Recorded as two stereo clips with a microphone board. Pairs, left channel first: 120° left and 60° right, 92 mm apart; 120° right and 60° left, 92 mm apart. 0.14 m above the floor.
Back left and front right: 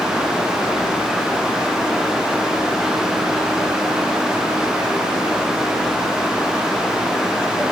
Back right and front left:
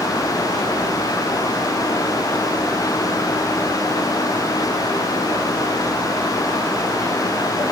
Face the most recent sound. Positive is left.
No sound to turn to.